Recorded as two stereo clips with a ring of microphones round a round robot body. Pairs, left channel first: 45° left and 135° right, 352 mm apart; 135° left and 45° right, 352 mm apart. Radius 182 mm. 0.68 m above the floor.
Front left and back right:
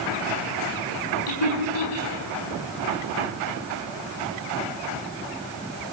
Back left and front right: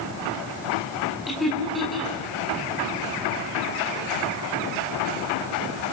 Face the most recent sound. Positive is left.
turn(degrees=45)